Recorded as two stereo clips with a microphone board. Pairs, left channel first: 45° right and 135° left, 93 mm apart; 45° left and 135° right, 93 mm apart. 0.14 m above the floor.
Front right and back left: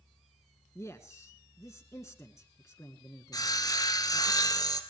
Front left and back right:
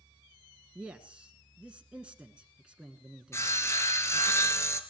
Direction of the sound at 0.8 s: 65° right.